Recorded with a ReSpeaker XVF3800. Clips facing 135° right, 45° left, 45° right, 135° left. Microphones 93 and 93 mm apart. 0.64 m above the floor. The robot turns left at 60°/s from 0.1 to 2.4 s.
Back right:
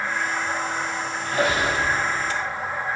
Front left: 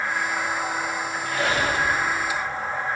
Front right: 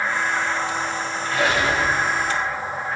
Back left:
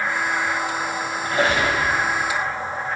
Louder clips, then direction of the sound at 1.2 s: Back right 2 dB, back left 1 dB; 170° right.